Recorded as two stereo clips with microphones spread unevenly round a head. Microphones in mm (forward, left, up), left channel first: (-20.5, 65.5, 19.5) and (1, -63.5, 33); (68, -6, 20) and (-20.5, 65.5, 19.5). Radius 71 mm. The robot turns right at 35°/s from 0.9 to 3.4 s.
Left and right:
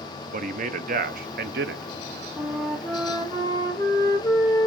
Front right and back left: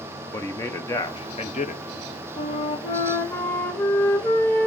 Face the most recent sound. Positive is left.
turn(degrees=35)